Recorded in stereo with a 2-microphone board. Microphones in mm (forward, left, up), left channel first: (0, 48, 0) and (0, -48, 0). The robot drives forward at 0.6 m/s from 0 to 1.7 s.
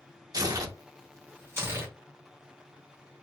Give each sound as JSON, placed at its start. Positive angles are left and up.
{"t": 0.3, "sound": "tearing paper", "side_deg": -40, "distance_m": 0.7}